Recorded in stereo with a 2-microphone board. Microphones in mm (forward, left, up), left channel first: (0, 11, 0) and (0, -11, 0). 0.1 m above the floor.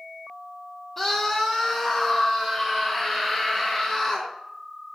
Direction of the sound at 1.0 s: 20° left (ahead or behind).